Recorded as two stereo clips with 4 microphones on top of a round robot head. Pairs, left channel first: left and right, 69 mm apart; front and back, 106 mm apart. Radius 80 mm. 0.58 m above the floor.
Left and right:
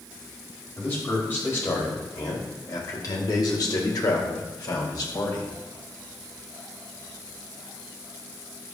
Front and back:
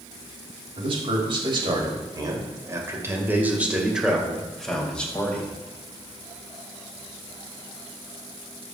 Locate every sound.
0.8 s a man speaking: 155° left, 4 m; by 5.5 s 75° left, 3.5 m